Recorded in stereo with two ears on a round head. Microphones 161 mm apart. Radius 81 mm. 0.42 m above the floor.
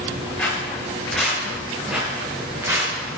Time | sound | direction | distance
0.4 | footsteps | 10° left (ahead or behind) | 4.5 m